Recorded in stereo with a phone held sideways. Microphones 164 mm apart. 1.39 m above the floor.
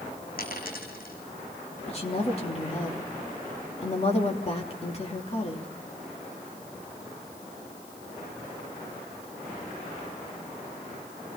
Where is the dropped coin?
65° left (ahead or behind), 3.5 m.